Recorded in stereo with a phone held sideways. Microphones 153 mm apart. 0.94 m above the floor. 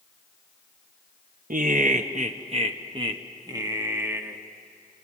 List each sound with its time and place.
1.5 s laughter: 60° right (ahead or behind), 0.9 m; by 4.4 s 15° right (ahead or behind), 1.7 m